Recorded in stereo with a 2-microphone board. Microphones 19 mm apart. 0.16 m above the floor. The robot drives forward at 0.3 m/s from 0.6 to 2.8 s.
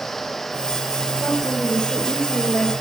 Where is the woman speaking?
60° left (ahead or behind), 3 m; by 2.7 s 55° left (ahead or behind), 3 m.